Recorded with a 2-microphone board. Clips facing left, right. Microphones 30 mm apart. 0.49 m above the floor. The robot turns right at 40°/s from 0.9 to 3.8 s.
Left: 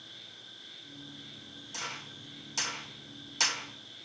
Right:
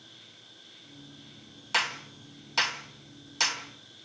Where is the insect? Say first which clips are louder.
Left 3 dB; 45° left, 8 m; by 4.1 s 160° left, 8 m.